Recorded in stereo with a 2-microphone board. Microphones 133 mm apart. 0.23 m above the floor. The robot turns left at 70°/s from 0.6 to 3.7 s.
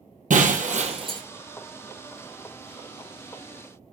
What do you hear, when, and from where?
0.3 s breaking glass: 105° right, 2.0 m; by 1.2 s 145° right, 2.0 m